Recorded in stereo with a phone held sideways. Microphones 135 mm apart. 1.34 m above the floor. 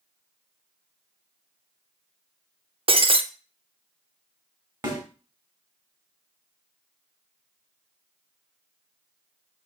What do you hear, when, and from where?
2.9 s breaking glass: 45° right (ahead or behind), 0.6 m
4.8 s a snare drum: 30° right (ahead or behind), 2 m